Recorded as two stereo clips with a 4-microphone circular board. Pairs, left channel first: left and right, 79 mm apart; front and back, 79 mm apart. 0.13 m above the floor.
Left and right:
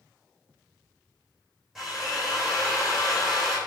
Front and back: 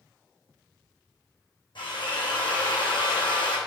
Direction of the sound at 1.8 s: 5° right.